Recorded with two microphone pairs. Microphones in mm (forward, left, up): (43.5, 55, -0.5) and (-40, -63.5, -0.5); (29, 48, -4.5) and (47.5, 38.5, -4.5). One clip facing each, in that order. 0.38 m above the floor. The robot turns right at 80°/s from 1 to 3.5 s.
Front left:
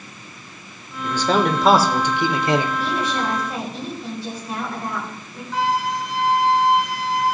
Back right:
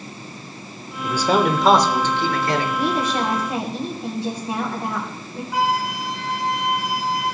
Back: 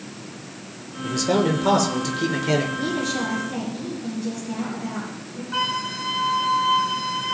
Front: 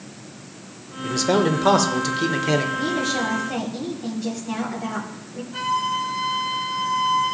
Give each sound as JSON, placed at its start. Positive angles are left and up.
{"t": 1.0, "sound": "a man speaking", "azimuth_deg": -80, "distance_m": 0.8}
{"t": 2.8, "sound": "a woman speaking", "azimuth_deg": -120, "distance_m": 2.0}
{"t": 5.5, "sound": "a flute", "azimuth_deg": 155, "distance_m": 1.9}